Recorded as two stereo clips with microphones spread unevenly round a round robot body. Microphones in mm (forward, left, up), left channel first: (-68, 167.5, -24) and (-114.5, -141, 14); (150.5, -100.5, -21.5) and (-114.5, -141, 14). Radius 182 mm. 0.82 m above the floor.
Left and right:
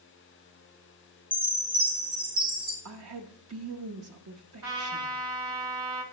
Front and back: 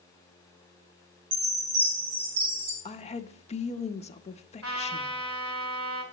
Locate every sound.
1.3 s a chime: 175° right, 2.5 m
2.9 s a woman speaking: 50° right, 0.6 m
4.6 s a trumpet: 135° right, 2.5 m